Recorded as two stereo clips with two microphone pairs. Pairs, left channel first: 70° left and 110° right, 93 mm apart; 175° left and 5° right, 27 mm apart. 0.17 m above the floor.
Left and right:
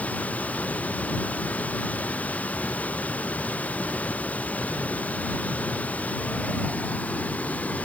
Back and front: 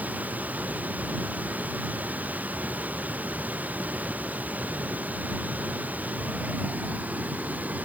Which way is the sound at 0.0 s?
5° right.